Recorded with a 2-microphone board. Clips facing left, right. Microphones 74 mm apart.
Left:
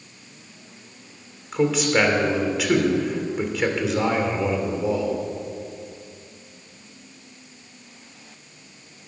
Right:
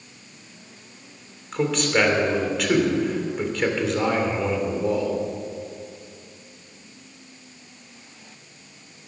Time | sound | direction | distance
1.5 | a man speaking | 5° left (ahead or behind) | 2.5 m